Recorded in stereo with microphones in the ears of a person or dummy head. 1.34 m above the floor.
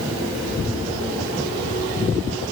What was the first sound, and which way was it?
Only background noise.